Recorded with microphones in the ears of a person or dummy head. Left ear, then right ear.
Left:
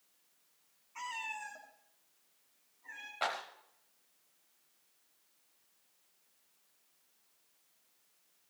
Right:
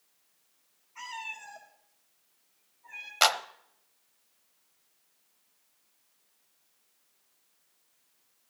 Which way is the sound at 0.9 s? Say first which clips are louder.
Right 1 dB; 50° left (ahead or behind).